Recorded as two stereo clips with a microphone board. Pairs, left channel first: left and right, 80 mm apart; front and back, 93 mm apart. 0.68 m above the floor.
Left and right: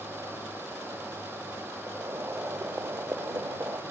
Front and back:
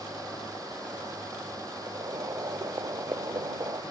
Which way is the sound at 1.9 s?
145° right.